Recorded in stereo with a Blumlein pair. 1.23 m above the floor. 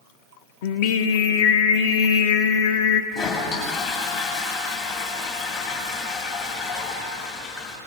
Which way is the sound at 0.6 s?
50° left.